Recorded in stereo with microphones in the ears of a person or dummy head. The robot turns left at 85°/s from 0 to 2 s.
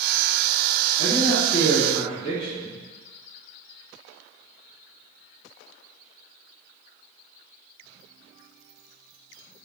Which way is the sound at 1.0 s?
140° left.